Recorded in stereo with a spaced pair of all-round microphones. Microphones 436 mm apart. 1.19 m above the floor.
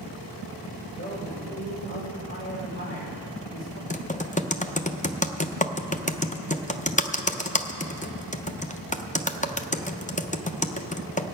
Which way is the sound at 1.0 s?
15° left (ahead or behind).